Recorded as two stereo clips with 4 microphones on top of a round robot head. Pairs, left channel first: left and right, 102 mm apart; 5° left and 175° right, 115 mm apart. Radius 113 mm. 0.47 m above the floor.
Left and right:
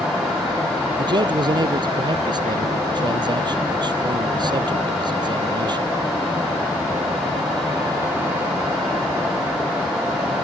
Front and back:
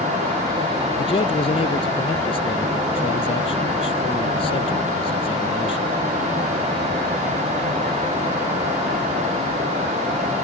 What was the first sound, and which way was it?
A man speaking, 45° right.